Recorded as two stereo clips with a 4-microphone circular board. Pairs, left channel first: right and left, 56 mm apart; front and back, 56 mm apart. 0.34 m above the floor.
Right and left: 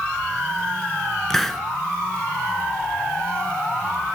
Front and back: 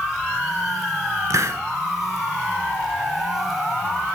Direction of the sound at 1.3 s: 175° right.